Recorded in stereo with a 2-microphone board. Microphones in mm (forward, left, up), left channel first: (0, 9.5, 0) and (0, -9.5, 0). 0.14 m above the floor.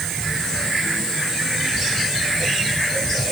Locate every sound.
Only background noise.